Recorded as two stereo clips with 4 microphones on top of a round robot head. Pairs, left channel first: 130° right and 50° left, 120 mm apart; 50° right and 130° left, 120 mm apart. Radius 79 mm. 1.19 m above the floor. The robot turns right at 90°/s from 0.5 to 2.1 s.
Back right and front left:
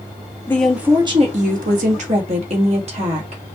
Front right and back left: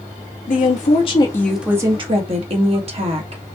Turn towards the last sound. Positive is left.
turn(degrees=90)